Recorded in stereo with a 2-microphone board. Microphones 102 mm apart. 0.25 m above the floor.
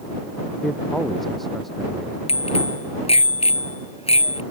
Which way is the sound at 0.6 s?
Centre (ahead or behind).